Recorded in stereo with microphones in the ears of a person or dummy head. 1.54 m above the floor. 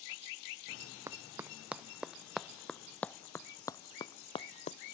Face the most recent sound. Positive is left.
turn(degrees=35)  # may be behind; listen again after turning